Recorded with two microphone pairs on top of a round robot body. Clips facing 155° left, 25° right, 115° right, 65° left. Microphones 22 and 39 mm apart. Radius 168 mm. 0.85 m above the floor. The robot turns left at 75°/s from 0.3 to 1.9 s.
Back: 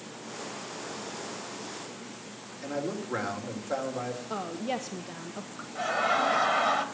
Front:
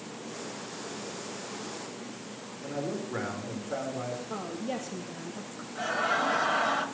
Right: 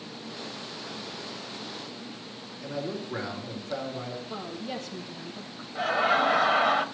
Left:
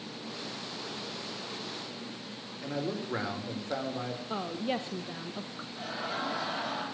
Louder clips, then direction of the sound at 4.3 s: Back 2 dB, left 6 dB; 120° left.